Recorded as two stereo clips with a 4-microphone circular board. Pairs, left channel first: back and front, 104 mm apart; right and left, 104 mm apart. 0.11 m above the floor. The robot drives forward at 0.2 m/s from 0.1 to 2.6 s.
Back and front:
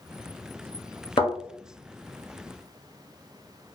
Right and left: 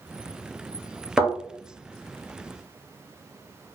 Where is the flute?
I don't hear a flute.